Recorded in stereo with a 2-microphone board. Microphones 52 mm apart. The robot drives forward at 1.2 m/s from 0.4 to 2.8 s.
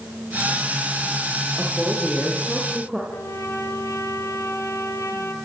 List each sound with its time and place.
1.6 s a woman speaking: 10° right (ahead or behind), 9.5 m; by 3.0 s 15° right (ahead or behind), 8 m
3.1 s a trumpet: 75° left (ahead or behind), 3.5 m